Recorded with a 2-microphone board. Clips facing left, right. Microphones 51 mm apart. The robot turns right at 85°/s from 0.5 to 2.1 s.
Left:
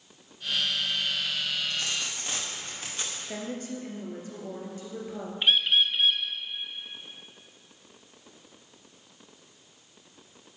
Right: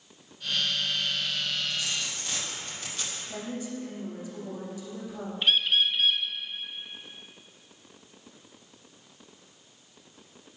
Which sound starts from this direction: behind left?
A dropped coin, at 1.7 s.